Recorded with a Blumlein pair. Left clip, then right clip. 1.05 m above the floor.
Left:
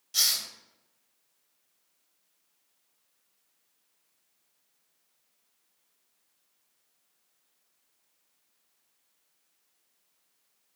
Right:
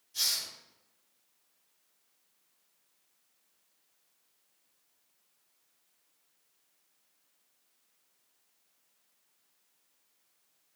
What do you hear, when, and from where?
0.1 s a hiss: 45° left, 0.8 m